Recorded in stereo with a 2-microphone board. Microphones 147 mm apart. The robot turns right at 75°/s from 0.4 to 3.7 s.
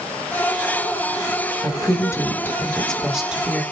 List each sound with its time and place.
1.6 s a woman speaking: 20° left (ahead or behind), 0.8 m; by 3.6 s 15° right (ahead or behind), 0.8 m